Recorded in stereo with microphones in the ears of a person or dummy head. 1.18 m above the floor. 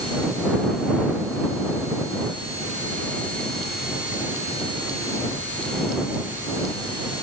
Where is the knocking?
I don't hear knocking.